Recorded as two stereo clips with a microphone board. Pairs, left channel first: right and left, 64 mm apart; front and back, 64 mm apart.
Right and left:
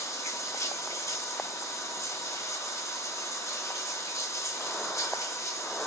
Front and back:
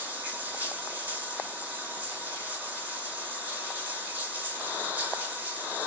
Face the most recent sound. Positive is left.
turn(degrees=-115)